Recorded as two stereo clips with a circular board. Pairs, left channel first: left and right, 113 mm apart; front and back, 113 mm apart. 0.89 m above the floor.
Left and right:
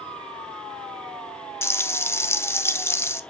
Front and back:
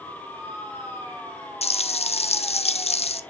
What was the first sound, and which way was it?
Frying, 20° left.